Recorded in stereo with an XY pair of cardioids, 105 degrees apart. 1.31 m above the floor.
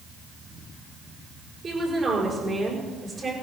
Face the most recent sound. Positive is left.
turn(degrees=-35)